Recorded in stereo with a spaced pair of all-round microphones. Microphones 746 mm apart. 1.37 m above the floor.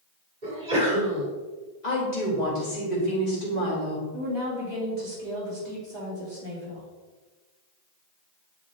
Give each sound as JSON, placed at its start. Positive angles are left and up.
{"t": 0.4, "sound": "a sneeze", "side_deg": -80, "distance_m": 4.0}
{"t": 1.8, "sound": "a woman speaking", "side_deg": 65, "distance_m": 3.0}
{"t": 4.1, "sound": "a woman speaking", "side_deg": -35, "distance_m": 3.5}